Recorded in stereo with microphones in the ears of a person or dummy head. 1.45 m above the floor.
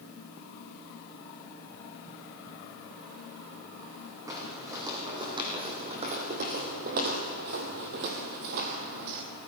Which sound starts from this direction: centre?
Footsteps, at 4.3 s.